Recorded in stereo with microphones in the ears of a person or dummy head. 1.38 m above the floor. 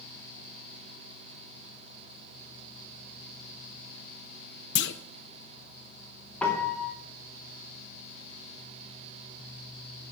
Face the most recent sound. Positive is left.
turn(degrees=10)  # may be behind; listen again after turning